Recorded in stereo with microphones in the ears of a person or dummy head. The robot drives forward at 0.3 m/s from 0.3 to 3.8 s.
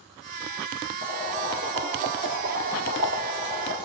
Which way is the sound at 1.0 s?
50° right (ahead or behind).